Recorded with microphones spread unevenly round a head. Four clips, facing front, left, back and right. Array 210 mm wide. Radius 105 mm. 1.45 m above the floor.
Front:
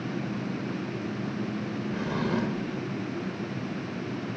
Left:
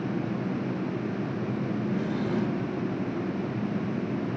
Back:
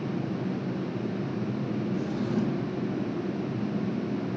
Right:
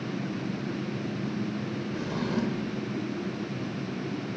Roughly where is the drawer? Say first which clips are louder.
Even, front 2 dB; ahead.